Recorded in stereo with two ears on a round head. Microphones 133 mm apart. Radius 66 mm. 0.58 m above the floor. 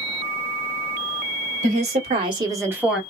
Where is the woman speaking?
55° right (ahead or behind), 1.7 m; by 3.0 s 5° right (ahead or behind), 1.3 m.